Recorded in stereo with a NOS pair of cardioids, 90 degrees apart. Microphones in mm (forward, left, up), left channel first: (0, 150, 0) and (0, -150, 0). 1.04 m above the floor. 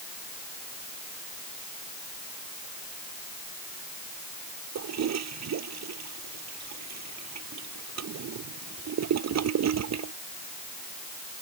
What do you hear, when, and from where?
4.8 s a toilet flushing: 60° right